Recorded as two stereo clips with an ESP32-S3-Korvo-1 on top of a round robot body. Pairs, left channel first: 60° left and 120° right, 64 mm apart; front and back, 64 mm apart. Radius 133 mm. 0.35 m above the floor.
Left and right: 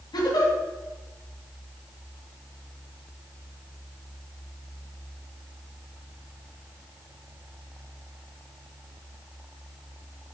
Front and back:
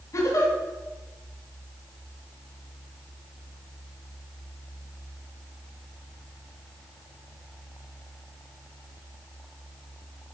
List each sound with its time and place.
0.1 s a giggle: 45° left, 1.9 m